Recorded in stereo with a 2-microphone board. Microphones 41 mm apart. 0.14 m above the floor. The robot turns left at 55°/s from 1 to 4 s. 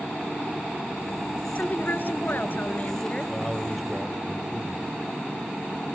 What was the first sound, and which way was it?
A woman speaking, 125° left.